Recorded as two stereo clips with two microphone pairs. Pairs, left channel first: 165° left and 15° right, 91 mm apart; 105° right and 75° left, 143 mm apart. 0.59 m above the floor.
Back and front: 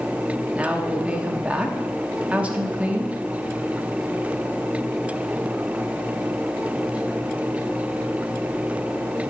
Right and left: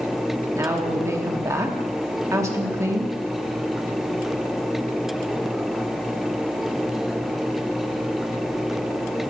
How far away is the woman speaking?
About 1.1 m.